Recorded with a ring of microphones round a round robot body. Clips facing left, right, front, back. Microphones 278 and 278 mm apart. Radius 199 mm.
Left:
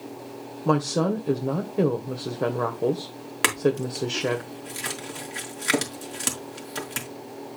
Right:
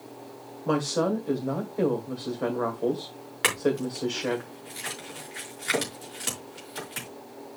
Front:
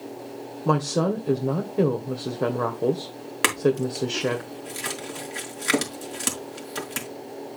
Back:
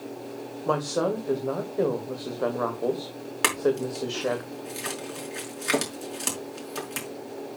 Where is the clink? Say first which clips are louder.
Left 2 dB, front 2 dB; 65° left, 5 m.